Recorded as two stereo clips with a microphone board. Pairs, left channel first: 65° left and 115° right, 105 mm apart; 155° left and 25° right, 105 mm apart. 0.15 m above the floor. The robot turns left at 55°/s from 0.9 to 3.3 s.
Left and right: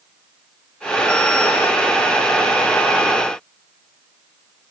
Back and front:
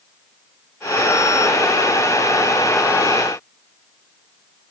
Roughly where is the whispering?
No whispering in this recording.